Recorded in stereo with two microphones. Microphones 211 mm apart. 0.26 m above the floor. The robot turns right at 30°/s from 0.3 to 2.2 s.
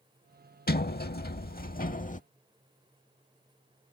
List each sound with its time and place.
0.7 s a sliding door: 80° left; by 2.2 s 125° left